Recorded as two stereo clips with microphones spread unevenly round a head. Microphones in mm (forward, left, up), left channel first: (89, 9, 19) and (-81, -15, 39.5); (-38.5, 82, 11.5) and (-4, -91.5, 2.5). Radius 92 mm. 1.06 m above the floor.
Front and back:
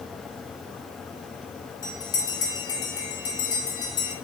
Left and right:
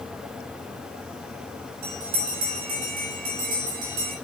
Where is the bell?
60° right, 9 m.